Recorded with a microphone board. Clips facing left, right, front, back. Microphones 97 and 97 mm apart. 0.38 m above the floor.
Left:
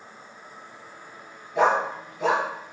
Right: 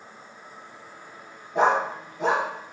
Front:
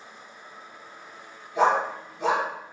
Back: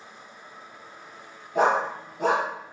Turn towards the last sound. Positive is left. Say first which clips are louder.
# even, even
turn(degrees=-140)